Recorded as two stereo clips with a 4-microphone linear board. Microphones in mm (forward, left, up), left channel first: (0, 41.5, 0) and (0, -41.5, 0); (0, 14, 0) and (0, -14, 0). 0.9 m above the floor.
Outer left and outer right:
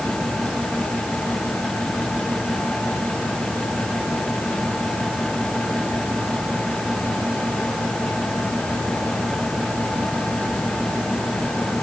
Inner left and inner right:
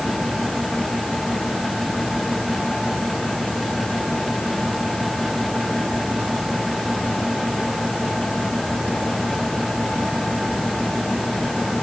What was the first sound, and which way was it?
Only background noise.